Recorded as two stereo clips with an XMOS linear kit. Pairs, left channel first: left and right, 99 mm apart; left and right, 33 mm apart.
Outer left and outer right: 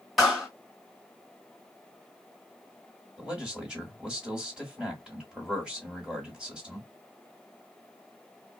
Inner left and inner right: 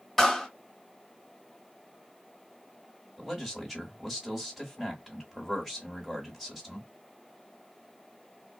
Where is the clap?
Centre (ahead or behind), 1.3 m.